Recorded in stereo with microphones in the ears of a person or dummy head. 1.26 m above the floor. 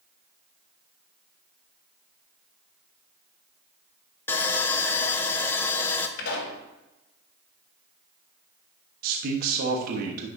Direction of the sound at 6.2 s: 60° left (ahead or behind).